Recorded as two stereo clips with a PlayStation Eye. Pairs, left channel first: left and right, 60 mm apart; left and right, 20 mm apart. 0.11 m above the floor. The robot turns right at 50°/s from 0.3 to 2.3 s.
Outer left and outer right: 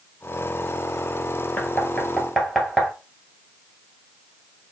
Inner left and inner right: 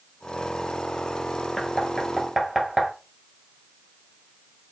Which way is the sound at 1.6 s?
30° left (ahead or behind).